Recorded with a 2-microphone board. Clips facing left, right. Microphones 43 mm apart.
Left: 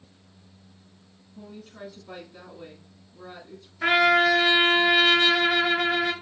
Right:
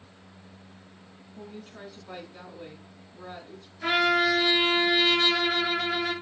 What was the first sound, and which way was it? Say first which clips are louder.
A woman speaking: left 1 dB; 5° right (ahead or behind).